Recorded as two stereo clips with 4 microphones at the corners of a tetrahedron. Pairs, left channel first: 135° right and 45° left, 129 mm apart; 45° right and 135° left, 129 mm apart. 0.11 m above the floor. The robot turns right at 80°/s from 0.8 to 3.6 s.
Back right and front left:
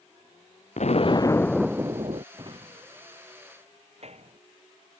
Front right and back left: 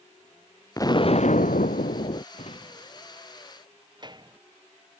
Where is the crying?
No crying in this recording.